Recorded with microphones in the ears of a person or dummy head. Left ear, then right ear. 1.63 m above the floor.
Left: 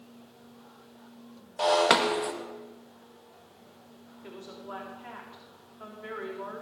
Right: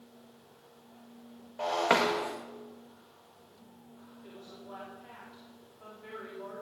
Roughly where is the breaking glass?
Left.